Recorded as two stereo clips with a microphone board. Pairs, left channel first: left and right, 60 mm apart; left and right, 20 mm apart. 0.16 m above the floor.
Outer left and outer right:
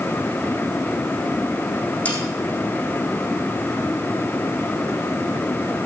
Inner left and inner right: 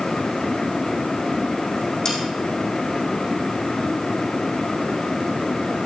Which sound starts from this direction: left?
Sawing, at 2.0 s.